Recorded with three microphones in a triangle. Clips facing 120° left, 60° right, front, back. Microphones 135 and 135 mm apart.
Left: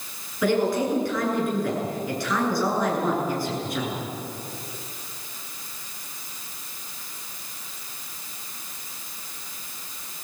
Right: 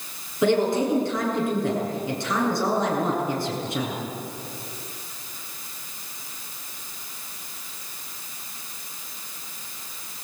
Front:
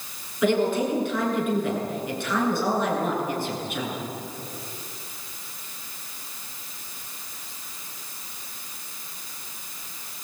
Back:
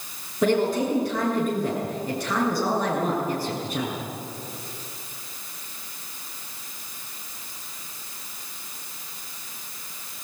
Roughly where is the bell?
I don't hear a bell.